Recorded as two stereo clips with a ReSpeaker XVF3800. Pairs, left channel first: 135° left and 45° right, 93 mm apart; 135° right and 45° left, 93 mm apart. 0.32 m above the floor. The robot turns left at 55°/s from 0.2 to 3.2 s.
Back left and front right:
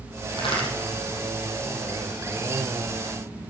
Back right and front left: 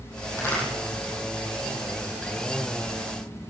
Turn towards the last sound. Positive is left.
turn(degrees=10)